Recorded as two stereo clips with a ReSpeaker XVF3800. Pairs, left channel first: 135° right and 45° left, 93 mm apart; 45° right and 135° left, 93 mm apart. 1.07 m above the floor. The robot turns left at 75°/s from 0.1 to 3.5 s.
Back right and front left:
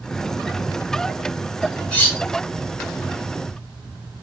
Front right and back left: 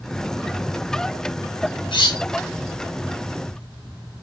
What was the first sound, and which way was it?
Cutlery clinking, 55° right.